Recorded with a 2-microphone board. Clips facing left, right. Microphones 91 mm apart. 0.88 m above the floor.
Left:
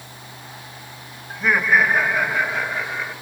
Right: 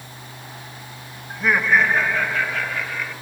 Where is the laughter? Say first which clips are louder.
Even; 5° right (ahead or behind), 1.6 m; by 3.1 s 30° left (ahead or behind), 2.5 m.